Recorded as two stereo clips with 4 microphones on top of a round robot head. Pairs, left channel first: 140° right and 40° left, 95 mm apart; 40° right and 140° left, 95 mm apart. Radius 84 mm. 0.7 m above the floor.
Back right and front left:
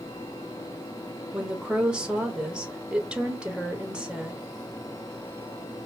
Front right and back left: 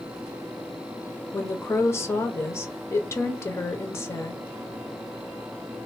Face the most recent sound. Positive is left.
turn(degrees=-25)